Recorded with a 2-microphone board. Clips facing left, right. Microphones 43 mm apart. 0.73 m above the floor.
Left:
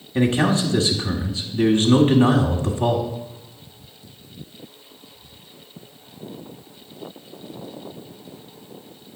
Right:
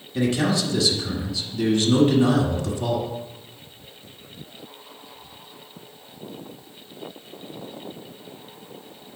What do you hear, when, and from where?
0.1 s a man speaking: 30° left (ahead or behind), 1.4 m